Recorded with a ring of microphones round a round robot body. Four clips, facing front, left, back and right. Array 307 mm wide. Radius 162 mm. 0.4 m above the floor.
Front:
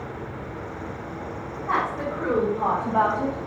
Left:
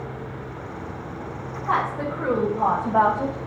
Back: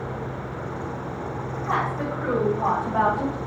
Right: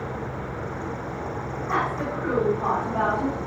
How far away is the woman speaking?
About 3.5 m.